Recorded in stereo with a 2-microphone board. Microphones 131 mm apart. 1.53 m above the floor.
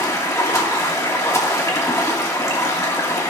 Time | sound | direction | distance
0.0 | running water | 25° left (ahead or behind) | 2.0 m